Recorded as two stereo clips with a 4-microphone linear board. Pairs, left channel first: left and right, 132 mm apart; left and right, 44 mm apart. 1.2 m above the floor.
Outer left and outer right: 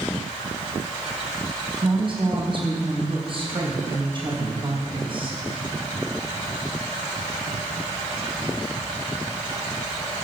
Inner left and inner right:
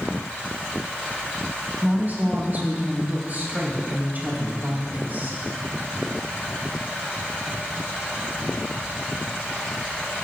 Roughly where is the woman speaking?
Right.